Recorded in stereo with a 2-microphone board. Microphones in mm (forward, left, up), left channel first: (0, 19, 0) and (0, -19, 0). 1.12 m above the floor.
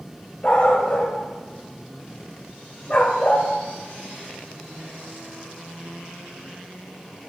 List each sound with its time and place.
0.4 s a dog barking: 35° left (ahead or behind), 1.5 m; by 3.5 s 40° left (ahead or behind), 1.2 m